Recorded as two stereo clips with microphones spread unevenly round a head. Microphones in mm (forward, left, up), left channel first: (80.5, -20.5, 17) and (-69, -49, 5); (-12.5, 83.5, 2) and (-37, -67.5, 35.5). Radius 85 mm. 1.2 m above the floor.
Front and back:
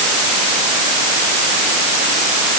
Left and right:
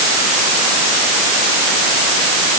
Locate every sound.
Only background noise.